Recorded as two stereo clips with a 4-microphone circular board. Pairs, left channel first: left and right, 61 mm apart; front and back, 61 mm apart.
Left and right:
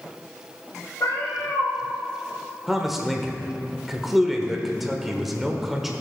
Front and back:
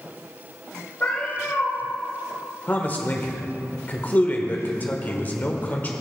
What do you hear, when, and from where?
1.0 s a cat meowing: 60° left, 3 m
2.7 s a man speaking: 10° right, 1.2 m